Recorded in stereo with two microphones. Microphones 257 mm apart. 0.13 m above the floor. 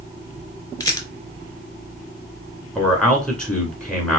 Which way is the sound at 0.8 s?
15° left (ahead or behind).